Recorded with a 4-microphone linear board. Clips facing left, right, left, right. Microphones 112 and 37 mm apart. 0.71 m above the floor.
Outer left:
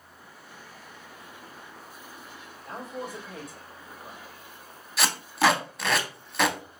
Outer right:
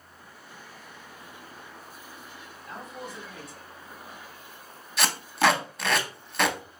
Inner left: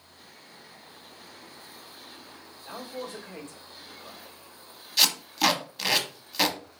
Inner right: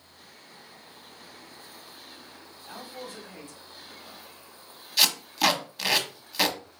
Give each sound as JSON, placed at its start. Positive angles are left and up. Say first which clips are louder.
{"t": 2.6, "sound": "a man speaking", "louder": "outer left 4 dB, inner left 3 dB", "side_deg": 50, "distance_m": 1.7}
{"t": 5.0, "sound": "tape being pulled", "louder": "even, even", "side_deg": 0, "distance_m": 0.6}